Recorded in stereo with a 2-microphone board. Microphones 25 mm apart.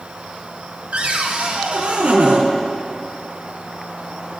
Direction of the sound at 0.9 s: 60° right (ahead or behind).